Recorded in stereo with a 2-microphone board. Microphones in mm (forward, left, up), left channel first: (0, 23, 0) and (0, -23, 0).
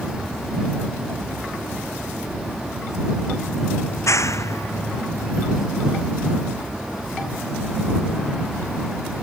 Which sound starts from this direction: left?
A clap, at 3.9 s.